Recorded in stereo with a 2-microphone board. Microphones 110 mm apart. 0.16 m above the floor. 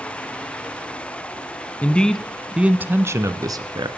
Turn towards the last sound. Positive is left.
turn(degrees=-45)  # may be behind; listen again after turning